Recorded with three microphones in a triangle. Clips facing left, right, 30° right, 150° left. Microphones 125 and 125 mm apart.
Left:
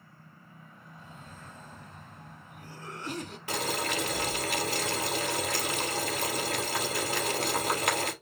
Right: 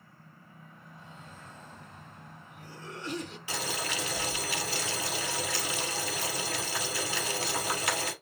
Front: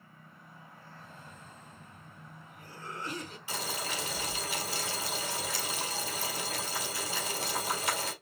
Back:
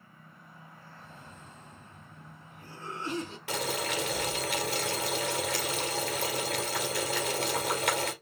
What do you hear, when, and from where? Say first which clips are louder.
1.0 s a cough: left 1 dB, back 1 dB; 95° left, 2 m
3.5 s boiling: left 5 dB, back 5 dB; 125° left, 2 m